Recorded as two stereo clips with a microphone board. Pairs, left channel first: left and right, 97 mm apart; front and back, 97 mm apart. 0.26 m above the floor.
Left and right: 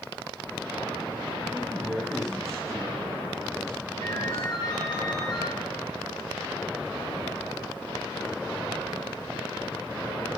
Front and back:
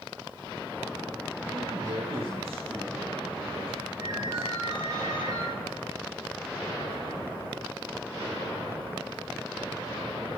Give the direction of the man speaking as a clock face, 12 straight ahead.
6 o'clock.